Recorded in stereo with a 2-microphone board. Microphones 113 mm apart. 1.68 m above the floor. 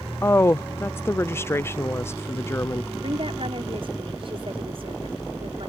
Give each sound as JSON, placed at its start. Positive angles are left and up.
{"t": 0.2, "sound": "a woman speaking", "side_deg": 20}
{"t": 3.0, "sound": "a woman speaking", "side_deg": -55}